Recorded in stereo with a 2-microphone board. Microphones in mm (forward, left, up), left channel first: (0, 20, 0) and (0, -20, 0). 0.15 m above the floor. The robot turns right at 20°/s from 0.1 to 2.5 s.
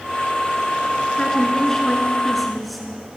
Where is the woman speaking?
20° left (ahead or behind), 1.8 m; by 3.2 s centre (ahead or behind), 1.8 m.